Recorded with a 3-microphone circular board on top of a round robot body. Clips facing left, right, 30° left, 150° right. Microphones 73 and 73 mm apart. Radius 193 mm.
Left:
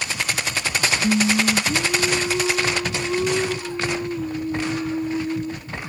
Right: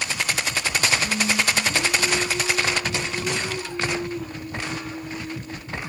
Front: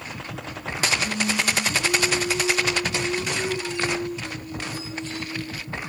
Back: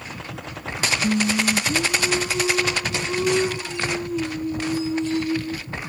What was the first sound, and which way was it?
Singing, 150° left.